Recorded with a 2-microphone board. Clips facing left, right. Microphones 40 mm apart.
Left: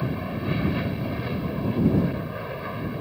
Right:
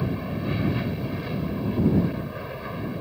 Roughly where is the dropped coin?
I don't hear a dropped coin.